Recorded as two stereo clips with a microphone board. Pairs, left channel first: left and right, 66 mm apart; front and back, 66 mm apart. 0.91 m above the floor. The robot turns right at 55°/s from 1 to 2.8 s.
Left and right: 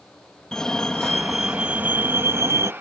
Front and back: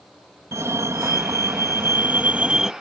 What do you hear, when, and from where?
0.5 s a fire alarm: 165° left; by 2.7 s 100° right